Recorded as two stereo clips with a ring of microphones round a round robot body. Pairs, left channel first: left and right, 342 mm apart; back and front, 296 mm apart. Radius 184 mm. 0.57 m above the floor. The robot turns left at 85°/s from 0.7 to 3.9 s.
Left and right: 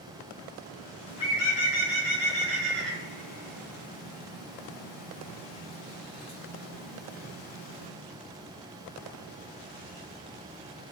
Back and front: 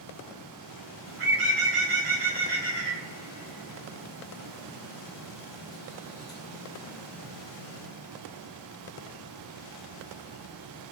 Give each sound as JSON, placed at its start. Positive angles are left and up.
{"t": 1.1, "sound": "a bird", "azimuth_deg": 30, "distance_m": 1.5}